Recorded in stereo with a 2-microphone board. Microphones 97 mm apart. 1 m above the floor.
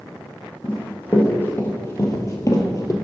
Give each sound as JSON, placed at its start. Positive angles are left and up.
{"t": 0.6, "sound": "running footsteps", "side_deg": 15, "distance_m": 2.5}